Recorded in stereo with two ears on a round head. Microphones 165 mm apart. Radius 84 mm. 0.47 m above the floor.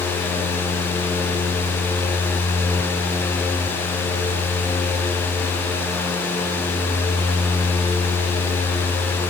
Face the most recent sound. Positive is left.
No sound to turn to.